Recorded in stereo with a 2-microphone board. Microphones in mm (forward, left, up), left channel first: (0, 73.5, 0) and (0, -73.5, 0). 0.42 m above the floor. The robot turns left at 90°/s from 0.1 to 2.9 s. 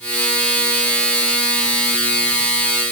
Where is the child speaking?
I don't hear a child speaking.